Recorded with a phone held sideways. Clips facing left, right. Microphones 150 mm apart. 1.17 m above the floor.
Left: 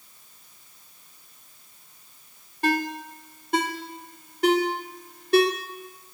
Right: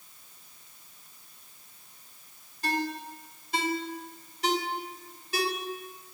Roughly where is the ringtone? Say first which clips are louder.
Left 6 dB; left.